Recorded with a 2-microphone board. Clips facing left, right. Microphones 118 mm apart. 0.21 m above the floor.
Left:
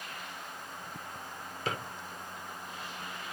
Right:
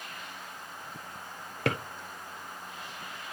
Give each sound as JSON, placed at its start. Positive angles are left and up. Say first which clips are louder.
{"t": 1.6, "sound": "a drawer", "louder": "right 5 dB", "side_deg": -75, "distance_m": 1.0}